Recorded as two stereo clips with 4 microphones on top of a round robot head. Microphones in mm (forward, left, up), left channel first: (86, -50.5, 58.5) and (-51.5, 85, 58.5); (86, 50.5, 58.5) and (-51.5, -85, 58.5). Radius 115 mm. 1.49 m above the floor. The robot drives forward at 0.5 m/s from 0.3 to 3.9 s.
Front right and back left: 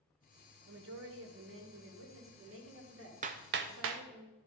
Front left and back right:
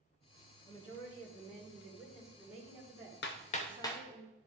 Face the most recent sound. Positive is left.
turn(degrees=120)